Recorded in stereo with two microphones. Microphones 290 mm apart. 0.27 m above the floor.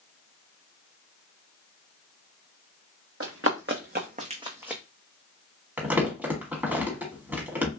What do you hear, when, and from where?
3.2 s running footsteps: 50° right (ahead or behind), 1.0 m; by 4.8 s centre (ahead or behind), 0.6 m
5.8 s crumpling: 5° right (ahead or behind), 1.1 m